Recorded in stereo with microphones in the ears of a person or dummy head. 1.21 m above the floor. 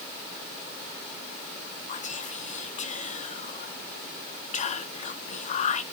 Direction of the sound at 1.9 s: 40° left (ahead or behind).